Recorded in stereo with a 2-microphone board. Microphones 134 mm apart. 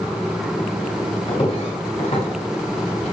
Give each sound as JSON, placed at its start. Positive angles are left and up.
{"t": 1.3, "sound": "footsteps", "side_deg": 45, "distance_m": 6.5}